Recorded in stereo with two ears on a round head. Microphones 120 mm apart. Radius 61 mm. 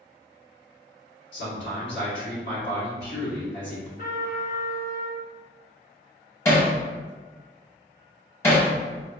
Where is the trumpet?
70° left (ahead or behind), 1.9 m.